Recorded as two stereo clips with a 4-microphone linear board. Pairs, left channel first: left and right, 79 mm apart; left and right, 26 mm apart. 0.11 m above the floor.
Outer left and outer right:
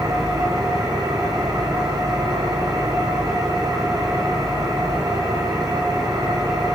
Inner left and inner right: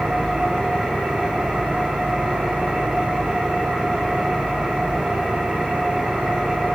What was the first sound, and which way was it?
An engine running, 45° right (ahead or behind).